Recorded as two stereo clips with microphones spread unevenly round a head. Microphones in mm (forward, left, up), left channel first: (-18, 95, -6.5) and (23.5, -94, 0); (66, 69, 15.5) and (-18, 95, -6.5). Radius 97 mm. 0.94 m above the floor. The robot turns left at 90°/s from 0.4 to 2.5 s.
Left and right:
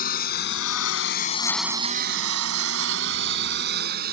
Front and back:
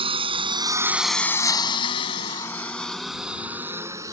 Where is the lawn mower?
150° left; by 4.1 s 120° right.